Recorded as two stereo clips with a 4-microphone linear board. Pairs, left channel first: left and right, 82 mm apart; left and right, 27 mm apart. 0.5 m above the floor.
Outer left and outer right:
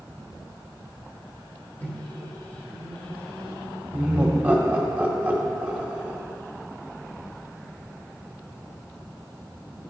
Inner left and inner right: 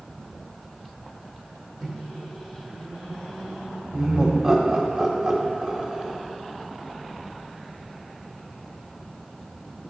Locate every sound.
1.8 s a microwave: 20° left (ahead or behind), 1.2 m
3.9 s laughter: 20° right (ahead or behind), 1.1 m